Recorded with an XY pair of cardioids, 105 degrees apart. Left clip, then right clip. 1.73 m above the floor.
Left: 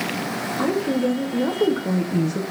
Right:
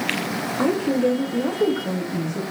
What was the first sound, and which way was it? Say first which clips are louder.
A woman speaking: right 2 dB; 15° right.